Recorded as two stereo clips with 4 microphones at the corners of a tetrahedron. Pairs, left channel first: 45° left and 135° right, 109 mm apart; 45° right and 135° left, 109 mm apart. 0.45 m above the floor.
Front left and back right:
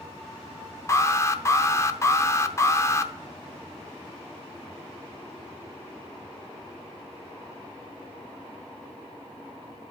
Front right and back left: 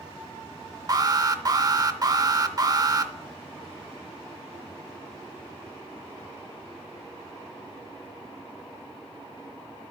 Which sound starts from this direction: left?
An alarm, at 0.9 s.